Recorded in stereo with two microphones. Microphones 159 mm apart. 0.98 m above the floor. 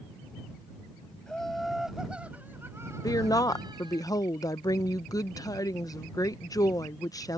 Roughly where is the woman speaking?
Left.